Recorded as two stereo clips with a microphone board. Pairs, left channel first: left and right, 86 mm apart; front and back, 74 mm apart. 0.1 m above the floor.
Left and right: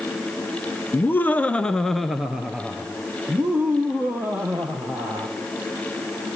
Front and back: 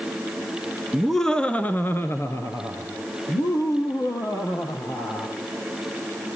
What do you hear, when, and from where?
0.9 s laughter: 95° left, 1.1 m; by 5.3 s 30° right, 3 m